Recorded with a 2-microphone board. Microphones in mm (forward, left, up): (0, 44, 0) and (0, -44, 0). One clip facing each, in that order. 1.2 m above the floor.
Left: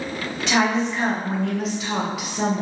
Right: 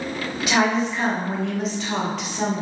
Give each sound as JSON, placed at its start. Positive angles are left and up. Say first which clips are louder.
{"t": 0.4, "sound": "a woman speaking", "louder": "even", "side_deg": -5, "distance_m": 1.0}